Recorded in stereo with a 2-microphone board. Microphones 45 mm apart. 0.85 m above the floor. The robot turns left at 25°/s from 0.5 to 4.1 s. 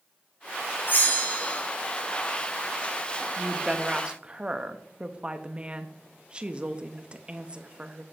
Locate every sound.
0.9 s a bell: 50° left (ahead or behind), 1.6 m; by 1.6 s 30° left (ahead or behind), 1.6 m
3.4 s a woman speaking: 5° right (ahead or behind), 0.7 m; by 8.0 s 25° right (ahead or behind), 0.7 m